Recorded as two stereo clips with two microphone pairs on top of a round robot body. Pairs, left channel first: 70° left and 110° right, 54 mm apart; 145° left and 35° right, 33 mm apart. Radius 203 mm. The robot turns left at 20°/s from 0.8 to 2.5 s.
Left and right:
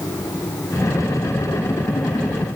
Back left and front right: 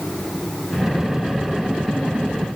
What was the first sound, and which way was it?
Only background noise.